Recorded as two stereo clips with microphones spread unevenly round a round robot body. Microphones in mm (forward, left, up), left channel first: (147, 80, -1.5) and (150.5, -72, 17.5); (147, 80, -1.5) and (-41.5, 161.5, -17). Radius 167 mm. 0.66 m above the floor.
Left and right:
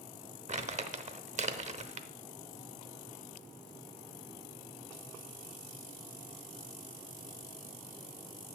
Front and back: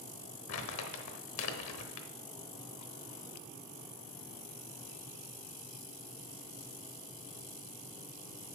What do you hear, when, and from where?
0.5 s crumpling: 45° right, 1.0 m